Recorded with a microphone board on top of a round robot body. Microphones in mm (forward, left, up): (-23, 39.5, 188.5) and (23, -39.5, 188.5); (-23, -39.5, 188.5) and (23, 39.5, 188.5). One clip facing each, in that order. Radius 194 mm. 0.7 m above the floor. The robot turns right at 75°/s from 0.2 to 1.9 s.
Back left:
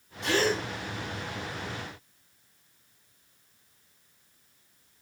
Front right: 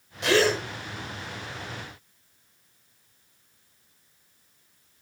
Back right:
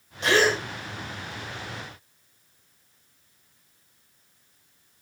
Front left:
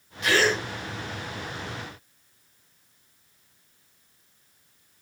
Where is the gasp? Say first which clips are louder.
Front right 5 dB, back right 2 dB; 60° right, 2 m; by 0.6 s 30° right, 2 m.